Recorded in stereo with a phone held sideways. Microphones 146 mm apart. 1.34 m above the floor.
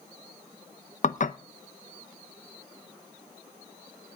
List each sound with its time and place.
1.0 s dishes clattering: 60° left (ahead or behind), 0.8 m